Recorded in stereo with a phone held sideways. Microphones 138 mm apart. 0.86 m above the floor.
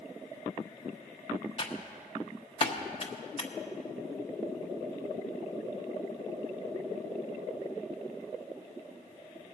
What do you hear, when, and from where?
1.6 s typing on a keyboard: 40° left (ahead or behind), 0.9 m